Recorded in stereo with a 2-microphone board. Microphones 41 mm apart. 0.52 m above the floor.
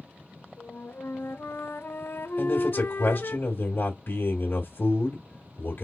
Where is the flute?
65° left (ahead or behind), 0.5 m.